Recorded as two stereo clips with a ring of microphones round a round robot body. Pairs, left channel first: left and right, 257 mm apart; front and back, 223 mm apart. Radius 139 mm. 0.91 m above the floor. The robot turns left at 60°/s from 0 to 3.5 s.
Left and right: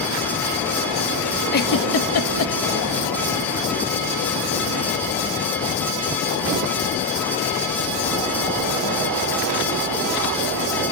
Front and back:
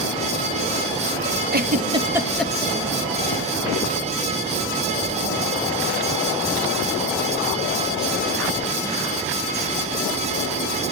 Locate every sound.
1.5 s a giggle: 140° left, 1.8 m; by 2.5 s 80° left, 1.8 m